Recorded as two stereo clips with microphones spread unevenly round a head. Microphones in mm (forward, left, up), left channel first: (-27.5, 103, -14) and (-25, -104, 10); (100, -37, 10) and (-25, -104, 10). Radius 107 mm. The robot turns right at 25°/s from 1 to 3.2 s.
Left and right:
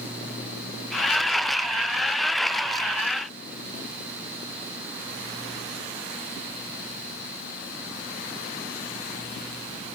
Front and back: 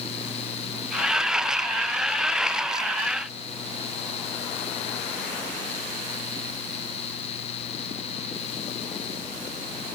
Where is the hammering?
No hammering in this recording.